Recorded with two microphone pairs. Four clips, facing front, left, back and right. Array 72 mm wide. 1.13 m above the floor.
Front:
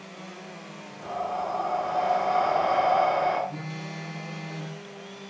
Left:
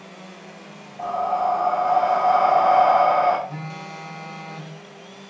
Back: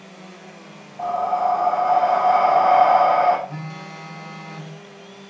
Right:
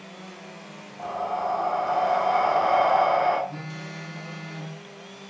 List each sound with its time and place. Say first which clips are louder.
1.0 s breathing: left 6 dB, back 10 dB; 155° left, 6.5 m
3.5 s a phone buzzing: left 3 dB, back 2 dB; 145° left, 7.5 m